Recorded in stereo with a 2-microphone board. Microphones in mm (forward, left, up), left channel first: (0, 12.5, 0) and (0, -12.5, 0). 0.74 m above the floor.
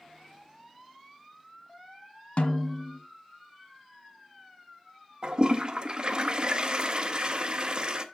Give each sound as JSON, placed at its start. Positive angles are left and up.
{"t": 2.4, "sound": "a snare drum", "side_deg": 65, "distance_m": 1.2}
{"t": 5.2, "sound": "a toilet flushing", "side_deg": -35, "distance_m": 0.8}